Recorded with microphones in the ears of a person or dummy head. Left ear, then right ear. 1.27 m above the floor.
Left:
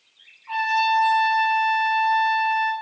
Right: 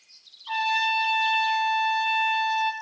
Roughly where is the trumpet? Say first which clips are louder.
Left 3 dB; right.